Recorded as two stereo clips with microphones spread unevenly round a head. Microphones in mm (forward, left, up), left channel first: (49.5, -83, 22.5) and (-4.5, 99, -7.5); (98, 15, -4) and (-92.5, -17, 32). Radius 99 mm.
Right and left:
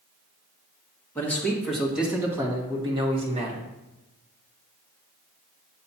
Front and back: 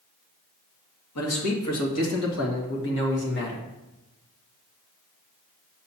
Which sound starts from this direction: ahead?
A man speaking, at 1.1 s.